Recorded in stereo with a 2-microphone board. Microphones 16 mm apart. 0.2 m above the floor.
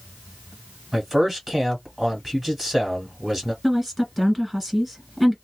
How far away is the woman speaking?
About 1.9 m.